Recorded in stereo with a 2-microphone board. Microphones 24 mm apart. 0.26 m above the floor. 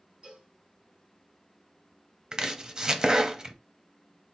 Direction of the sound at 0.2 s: 55° right (ahead or behind).